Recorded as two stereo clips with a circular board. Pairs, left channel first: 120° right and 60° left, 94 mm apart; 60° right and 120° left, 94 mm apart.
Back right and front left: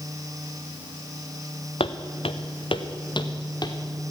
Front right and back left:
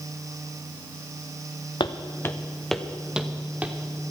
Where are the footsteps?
100° right, 0.9 m; by 3.8 s 165° right, 2 m.